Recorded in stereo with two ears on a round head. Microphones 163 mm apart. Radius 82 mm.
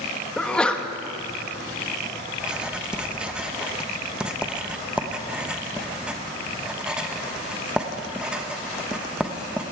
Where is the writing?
5° right (ahead or behind), 0.8 m.